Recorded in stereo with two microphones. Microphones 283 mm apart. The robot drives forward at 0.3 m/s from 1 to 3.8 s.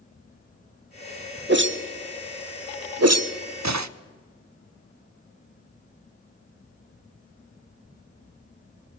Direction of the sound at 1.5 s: 40° right (ahead or behind).